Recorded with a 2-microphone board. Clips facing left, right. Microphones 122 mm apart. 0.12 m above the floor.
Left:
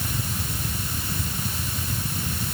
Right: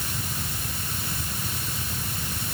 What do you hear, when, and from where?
Only background noise.